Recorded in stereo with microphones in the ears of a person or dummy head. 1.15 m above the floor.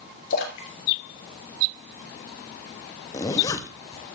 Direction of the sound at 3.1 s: 20° left (ahead or behind).